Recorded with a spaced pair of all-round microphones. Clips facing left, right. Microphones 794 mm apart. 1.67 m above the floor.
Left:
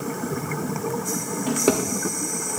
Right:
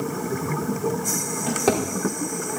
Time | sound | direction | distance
1.5 | a drawer | 30° right (ahead or behind) | 3 m